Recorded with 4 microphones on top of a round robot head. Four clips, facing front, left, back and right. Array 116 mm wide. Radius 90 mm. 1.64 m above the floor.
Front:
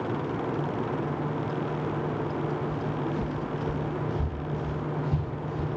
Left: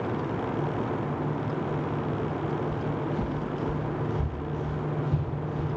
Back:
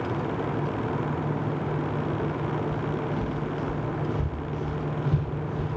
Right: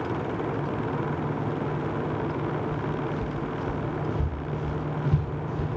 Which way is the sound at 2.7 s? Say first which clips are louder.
Even, back 1 dB; 75° left.